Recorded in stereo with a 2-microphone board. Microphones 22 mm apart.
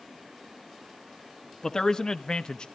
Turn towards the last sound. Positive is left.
turn(degrees=50)  # may be behind; listen again after turning